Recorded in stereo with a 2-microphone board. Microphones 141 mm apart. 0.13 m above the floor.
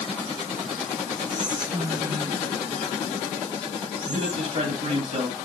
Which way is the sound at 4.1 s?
60° right (ahead or behind).